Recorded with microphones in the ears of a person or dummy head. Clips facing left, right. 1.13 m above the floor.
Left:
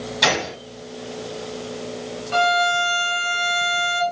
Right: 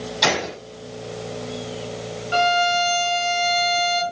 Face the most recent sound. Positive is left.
turn(degrees=-15)  # may be behind; listen again after turning